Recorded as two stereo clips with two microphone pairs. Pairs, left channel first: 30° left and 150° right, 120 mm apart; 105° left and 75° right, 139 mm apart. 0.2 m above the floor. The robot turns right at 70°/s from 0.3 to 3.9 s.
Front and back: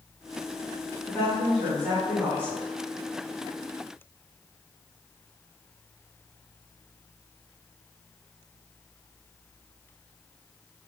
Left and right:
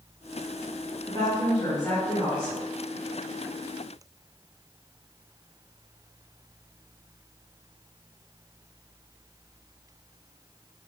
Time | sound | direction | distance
1.0 | a woman speaking | 90° left | 1.7 m